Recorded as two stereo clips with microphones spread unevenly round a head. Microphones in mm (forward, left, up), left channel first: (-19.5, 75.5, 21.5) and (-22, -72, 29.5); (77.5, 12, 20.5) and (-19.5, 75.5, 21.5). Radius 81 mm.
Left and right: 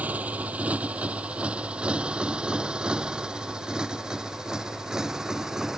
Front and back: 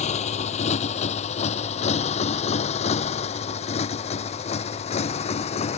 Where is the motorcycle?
10° right; by 5.8 s 5° right.